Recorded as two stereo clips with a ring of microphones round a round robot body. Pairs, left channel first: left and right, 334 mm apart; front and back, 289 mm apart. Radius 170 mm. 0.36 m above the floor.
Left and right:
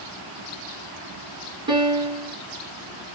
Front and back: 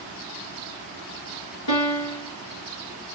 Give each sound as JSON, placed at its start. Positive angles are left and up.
{"t": 1.7, "sound": "a piano", "azimuth_deg": -10, "distance_m": 1.5}